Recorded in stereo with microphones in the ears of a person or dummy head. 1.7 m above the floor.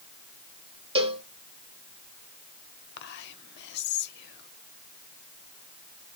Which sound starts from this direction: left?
Whispering, at 3.0 s.